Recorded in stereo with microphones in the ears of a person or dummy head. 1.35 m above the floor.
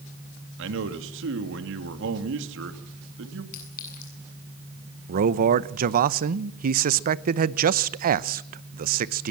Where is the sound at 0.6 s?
75° right (ahead or behind), 2.5 m.